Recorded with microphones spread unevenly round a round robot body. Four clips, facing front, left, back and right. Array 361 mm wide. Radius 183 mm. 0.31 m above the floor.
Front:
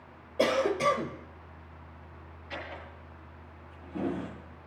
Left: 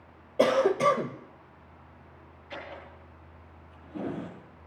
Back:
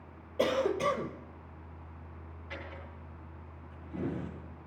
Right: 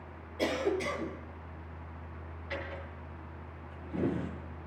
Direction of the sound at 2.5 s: 115° right.